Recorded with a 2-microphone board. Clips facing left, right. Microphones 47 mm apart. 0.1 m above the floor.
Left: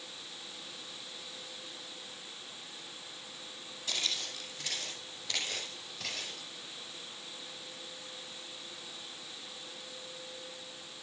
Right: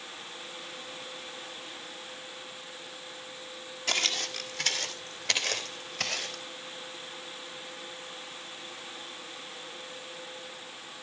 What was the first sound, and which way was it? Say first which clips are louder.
Footsteps: right 7 dB; 70° right (ahead or behind).